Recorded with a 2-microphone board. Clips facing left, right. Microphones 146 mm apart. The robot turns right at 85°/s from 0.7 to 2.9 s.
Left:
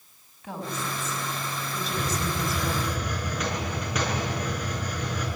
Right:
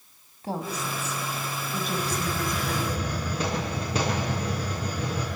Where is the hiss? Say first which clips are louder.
Even; 125° left, 7 m; by 5.3 s 150° right, 7 m.